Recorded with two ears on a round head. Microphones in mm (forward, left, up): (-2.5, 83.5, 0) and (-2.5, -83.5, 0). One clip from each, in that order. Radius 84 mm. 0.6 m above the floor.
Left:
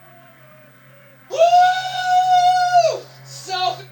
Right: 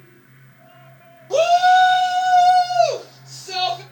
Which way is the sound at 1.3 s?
10° right (ahead or behind).